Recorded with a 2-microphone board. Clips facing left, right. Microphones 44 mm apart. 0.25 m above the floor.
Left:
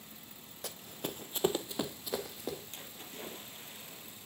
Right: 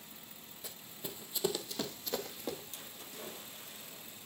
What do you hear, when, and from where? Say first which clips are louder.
0.6 s running footsteps: left 6 dB; 75° left (ahead or behind), 0.7 m; by 2.6 s centre (ahead or behind), 1.2 m
2.7 s a splash: left 2 dB; 40° left (ahead or behind), 2 m